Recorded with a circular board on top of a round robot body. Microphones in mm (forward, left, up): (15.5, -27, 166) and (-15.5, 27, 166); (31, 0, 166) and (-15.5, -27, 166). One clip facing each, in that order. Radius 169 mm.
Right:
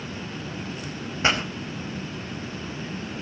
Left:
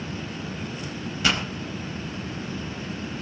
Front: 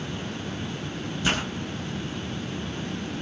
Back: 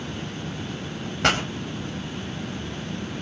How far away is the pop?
About 4.5 m.